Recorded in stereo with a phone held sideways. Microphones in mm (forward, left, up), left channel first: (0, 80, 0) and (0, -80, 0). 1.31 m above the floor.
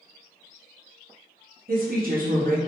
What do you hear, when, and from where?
1.7 s a woman speaking: 60° right (ahead or behind), 0.6 m